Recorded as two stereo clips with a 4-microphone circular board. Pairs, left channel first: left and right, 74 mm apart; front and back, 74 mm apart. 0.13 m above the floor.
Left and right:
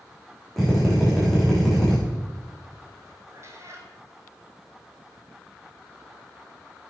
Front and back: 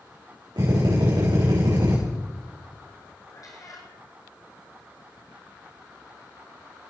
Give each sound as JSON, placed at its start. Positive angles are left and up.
{"t": 0.6, "sound": "a drill", "azimuth_deg": 180, "distance_m": 6.0}
{"t": 3.3, "sound": "a cat meowing", "azimuth_deg": -40, "distance_m": 2.0}